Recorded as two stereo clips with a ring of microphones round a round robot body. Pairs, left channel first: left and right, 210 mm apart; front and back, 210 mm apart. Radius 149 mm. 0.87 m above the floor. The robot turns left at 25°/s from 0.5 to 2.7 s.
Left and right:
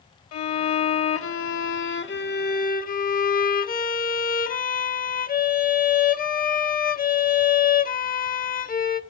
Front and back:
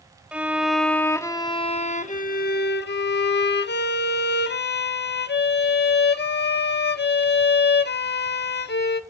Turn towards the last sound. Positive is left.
turn(degrees=40)